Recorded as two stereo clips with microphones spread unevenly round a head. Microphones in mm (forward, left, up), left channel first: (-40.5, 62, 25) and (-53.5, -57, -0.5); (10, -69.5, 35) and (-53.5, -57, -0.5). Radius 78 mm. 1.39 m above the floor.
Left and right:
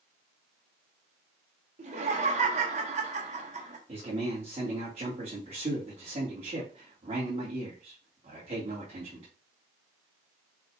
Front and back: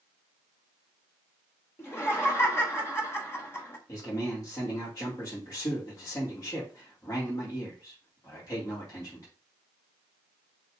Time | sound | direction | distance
1.8 | laughter | 60° right | 1.9 m
3.9 | a man speaking | 50° right | 2.5 m